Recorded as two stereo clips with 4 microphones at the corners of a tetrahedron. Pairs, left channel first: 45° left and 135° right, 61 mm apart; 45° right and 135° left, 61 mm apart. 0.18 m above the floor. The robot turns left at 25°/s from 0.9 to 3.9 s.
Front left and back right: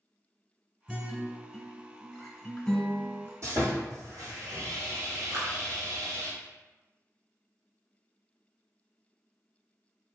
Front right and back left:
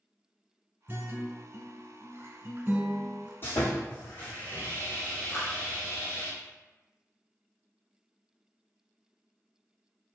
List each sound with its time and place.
0.9 s a guitar: 160° left, 1.0 m; by 3.3 s 100° left, 1.0 m
3.4 s sawing: 100° right, 1.7 m; by 6.3 s 110° right, 1.7 m
5.3 s a clap: 90° right, 1.8 m